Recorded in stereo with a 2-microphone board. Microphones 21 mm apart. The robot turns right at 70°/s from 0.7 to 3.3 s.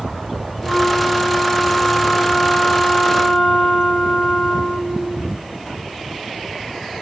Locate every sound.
0.6 s a flute: 85° right, 7.5 m; by 5.2 s 95° left, 7.5 m